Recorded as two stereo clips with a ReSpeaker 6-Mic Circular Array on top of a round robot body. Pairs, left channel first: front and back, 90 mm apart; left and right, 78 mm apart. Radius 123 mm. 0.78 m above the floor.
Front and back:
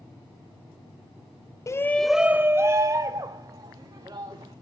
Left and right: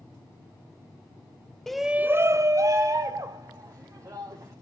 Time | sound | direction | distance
1.7 | a shout | 10° left | 0.6 m